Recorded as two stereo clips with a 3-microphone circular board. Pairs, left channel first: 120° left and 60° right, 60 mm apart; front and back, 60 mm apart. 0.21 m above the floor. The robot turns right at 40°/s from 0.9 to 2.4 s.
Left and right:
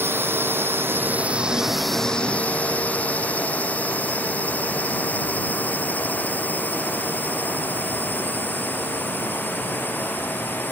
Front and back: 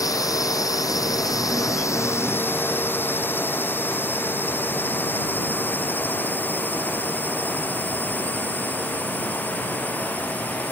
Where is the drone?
10° right; by 10.7 s 65° left.